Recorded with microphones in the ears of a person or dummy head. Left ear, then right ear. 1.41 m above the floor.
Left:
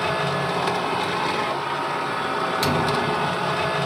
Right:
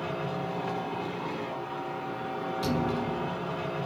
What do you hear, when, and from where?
0.0 s a machine running: 65° left (ahead or behind), 0.8 m
2.6 s a thud: 25° left (ahead or behind), 0.9 m